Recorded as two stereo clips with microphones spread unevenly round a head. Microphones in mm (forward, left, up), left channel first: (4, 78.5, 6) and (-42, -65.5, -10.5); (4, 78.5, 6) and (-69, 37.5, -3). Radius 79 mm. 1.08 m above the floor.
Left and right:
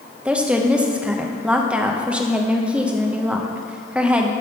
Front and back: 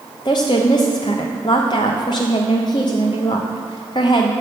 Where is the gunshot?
I don't hear a gunshot.